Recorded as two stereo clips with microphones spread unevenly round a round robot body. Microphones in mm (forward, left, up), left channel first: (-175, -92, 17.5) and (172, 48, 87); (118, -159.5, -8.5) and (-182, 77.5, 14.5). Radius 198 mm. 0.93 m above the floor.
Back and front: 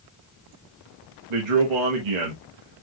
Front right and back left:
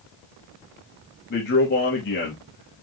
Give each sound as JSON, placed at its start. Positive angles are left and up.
{"t": 1.3, "sound": "a man speaking", "azimuth_deg": 25, "distance_m": 1.2}